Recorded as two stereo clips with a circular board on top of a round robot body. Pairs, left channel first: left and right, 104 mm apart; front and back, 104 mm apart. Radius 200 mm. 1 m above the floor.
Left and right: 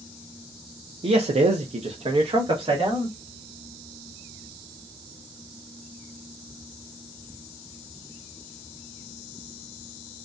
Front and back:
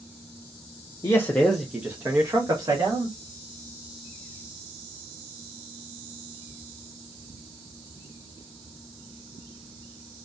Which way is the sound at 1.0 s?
55° right.